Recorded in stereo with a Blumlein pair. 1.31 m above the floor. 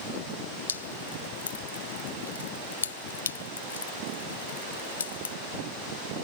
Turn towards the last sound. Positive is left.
turn(degrees=70)